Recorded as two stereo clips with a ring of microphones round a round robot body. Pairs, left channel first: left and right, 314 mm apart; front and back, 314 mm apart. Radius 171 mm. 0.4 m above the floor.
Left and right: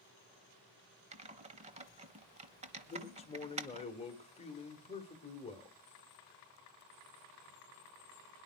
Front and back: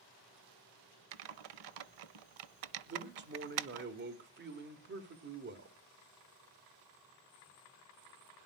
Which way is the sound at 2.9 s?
150° left.